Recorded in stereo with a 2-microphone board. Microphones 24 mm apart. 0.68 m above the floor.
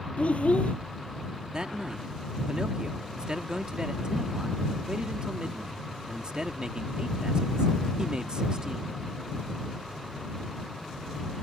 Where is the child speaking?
85° left.